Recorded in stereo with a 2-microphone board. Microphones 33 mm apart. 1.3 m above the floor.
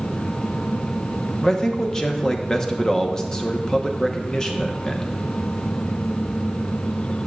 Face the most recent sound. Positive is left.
turn(degrees=20)  # may be behind; listen again after turning